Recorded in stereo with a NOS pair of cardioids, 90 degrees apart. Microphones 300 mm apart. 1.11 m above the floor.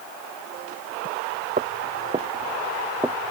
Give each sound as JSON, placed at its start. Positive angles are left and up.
{"t": 1.6, "sound": "footsteps", "azimuth_deg": -25}